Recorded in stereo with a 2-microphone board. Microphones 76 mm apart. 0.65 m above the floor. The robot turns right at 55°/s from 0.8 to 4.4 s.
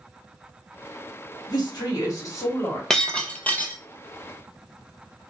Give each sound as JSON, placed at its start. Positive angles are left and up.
{"t": 1.5, "sound": "a woman speaking", "azimuth_deg": 80, "distance_m": 1.5}
{"t": 2.9, "sound": "breaking glass", "side_deg": 10, "distance_m": 0.7}